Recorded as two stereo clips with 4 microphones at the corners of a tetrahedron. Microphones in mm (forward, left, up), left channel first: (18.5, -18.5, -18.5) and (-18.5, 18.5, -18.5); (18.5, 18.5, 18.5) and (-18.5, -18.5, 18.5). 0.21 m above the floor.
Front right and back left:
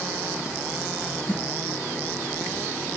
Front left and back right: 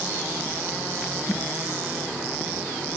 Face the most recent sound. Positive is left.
turn(degrees=15)